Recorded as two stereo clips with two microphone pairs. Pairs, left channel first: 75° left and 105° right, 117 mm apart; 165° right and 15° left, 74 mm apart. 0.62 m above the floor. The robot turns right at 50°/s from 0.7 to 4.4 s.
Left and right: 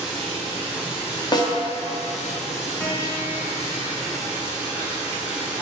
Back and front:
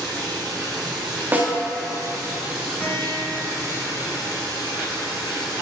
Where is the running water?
10° right, 1.7 m; by 5.6 s 175° left, 1.7 m.